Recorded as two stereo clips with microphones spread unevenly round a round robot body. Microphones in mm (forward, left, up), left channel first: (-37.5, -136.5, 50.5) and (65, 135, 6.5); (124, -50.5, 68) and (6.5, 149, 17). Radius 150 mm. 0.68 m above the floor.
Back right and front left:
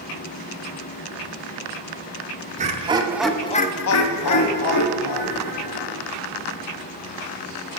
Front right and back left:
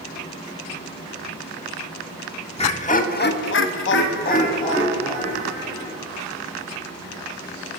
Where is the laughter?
10° left, 1.9 m; by 6.0 s 140° right, 3.5 m.